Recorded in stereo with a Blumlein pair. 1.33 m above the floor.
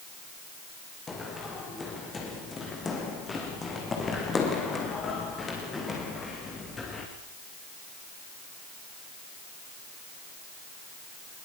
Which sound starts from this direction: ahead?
Running footsteps, at 1.1 s.